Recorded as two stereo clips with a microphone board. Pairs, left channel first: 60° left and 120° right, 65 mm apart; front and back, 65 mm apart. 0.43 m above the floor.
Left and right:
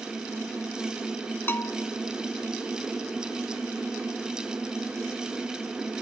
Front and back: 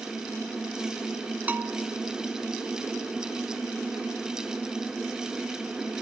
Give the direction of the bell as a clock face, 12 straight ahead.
8 o'clock.